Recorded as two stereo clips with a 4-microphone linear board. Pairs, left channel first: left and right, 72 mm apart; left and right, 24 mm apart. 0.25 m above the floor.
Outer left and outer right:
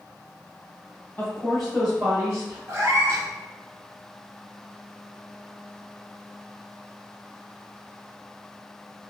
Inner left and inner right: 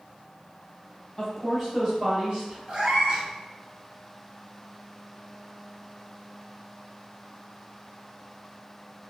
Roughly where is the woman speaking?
Left.